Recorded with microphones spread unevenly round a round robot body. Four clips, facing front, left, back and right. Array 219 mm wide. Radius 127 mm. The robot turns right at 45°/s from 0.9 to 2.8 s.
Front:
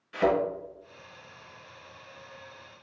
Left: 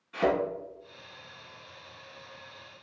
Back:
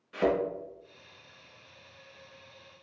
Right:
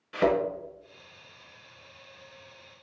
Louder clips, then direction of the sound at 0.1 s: Right 2 dB, front 3 dB; 110° right.